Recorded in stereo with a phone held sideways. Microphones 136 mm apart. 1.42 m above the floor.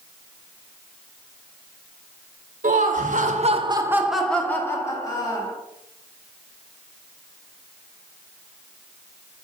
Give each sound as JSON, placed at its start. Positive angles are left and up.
{"t": 2.6, "sound": "laughter", "side_deg": -75, "distance_m": 1.0}